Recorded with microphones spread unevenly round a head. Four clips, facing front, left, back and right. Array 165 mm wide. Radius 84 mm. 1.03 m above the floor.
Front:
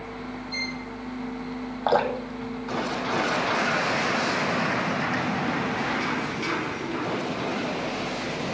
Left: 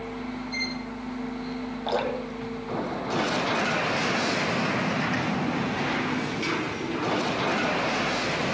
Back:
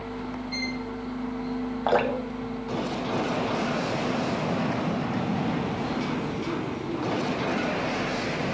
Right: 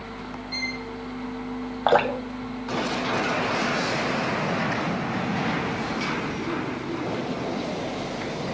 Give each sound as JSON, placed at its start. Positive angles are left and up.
{"t": 0.5, "sound": "a violin", "azimuth_deg": -65, "distance_m": 9.0}
{"t": 1.9, "sound": "dripping", "azimuth_deg": -55, "distance_m": 1.8}